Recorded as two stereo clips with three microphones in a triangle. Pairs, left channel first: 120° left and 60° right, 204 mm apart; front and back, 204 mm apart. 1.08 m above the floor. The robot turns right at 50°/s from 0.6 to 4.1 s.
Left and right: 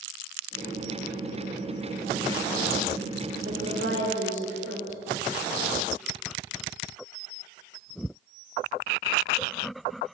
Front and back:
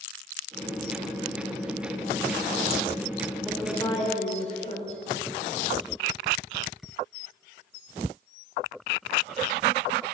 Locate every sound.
3.5 s a woman speaking: 90° right, 4.5 m; by 5.0 s 60° right, 4.5 m